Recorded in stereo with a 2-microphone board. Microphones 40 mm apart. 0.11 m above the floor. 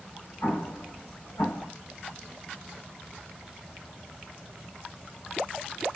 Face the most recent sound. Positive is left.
turn(degrees=70)  # may be behind; listen again after turning